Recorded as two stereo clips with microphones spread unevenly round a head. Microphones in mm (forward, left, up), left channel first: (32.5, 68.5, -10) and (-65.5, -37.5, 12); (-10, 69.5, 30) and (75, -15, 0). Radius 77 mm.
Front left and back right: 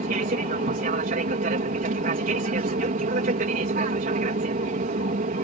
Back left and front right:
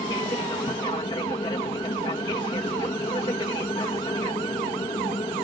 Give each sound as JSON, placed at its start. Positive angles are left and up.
{"t": 0.0, "sound": "an aircraft", "azimuth_deg": -160}